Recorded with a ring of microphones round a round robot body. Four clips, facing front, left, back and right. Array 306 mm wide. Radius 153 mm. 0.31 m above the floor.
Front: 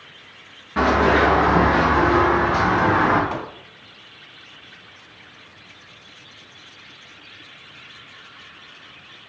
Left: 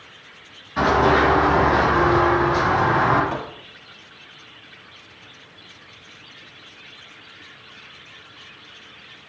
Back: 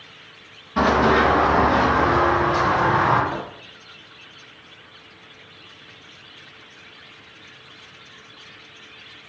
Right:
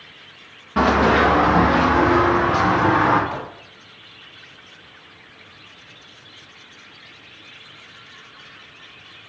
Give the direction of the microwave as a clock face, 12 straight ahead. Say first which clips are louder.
Left 1 dB, front 1 dB; 12 o'clock.